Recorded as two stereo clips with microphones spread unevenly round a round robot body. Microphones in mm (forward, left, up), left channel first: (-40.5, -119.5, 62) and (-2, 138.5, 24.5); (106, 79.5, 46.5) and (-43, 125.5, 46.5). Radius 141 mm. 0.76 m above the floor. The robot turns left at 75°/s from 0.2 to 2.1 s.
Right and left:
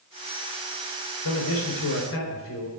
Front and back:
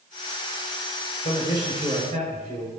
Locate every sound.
1.2 s a man speaking: 75° right, 4 m; by 2.7 s 140° right, 4 m